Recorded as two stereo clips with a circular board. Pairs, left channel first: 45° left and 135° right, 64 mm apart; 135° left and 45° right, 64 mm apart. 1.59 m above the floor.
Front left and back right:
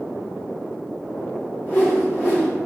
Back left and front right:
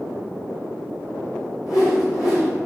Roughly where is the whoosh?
Left.